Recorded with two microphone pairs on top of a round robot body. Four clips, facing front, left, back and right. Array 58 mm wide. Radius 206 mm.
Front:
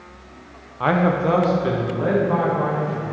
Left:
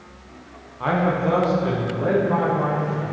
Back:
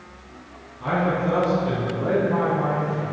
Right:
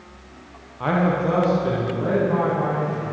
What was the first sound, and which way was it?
A man speaking, 5° right.